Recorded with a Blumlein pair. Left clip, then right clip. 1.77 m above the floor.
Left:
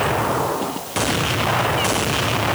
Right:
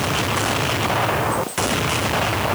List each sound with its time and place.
Only background noise.